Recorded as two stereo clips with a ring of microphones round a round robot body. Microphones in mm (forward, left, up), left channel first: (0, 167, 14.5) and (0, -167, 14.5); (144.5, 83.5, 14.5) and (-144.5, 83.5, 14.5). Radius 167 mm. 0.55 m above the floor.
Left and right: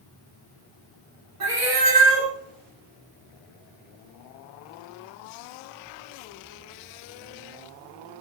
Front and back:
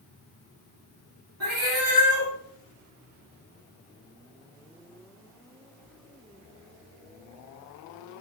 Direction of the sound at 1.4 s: 130° right.